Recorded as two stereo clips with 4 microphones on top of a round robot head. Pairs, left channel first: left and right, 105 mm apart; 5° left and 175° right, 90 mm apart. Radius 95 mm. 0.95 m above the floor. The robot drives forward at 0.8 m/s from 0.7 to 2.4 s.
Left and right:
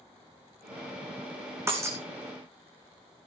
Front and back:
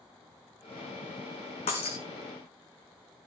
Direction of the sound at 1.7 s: 25° right.